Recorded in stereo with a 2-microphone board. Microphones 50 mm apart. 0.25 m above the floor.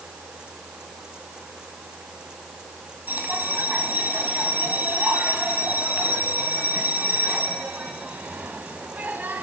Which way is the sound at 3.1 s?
40° right (ahead or behind).